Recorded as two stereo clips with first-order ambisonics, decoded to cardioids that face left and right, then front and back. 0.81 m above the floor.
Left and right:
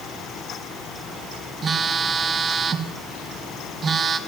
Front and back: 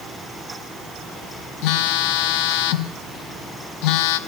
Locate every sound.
1.6 s a phone buzzing: 20° right, 0.6 m